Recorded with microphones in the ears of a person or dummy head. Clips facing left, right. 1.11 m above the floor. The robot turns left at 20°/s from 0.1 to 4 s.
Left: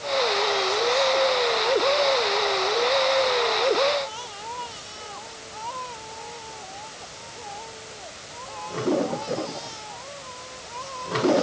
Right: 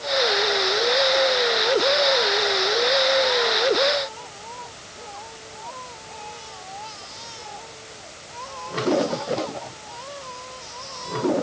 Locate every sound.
Only background noise.